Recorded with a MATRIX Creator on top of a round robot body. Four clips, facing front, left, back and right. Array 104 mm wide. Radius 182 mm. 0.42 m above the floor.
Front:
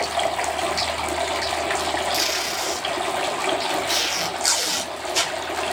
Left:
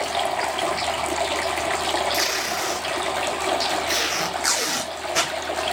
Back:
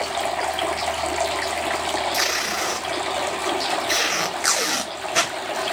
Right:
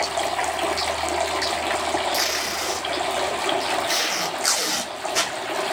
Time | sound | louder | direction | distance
2.1 | tape being pulled | left 1 dB, back 1 dB | 165° left | 0.9 m